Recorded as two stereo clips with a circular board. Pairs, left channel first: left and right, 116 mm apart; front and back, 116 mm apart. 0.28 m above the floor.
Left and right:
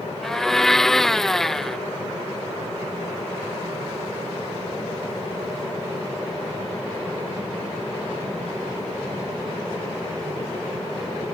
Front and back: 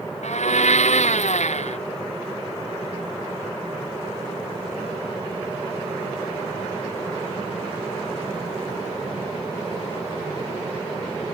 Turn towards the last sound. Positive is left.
turn(degrees=5)